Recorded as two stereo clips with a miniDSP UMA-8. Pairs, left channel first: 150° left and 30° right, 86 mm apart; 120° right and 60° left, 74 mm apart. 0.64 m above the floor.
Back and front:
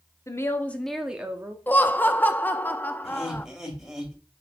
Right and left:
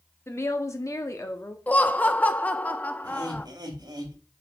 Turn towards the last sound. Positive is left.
turn(degrees=55)